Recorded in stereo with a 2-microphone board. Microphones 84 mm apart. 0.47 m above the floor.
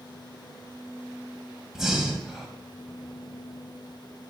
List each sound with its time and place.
1.8 s breathing: 5° right (ahead or behind), 2.0 m